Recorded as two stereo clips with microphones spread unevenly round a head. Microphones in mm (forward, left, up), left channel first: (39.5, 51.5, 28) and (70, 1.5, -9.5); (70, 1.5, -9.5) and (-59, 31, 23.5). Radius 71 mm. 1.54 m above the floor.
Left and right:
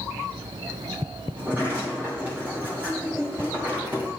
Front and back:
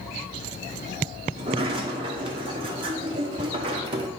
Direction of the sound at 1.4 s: 140° right.